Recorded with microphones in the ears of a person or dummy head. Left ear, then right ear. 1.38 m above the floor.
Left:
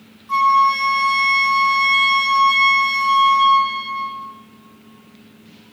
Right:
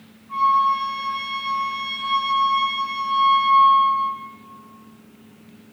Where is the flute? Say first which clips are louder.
Left 4 dB; 70° left (ahead or behind), 3 m.